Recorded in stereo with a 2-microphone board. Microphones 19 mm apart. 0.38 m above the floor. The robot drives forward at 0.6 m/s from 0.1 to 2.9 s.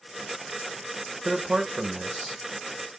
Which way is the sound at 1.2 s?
35° right (ahead or behind).